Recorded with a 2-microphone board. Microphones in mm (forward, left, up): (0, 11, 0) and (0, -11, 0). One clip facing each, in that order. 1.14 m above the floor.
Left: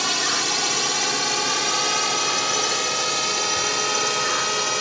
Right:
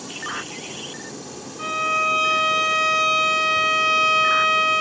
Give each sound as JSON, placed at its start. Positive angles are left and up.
{"t": 0.0, "sound": "a drone", "side_deg": 65}
{"t": 1.6, "sound": "a violin", "side_deg": -35}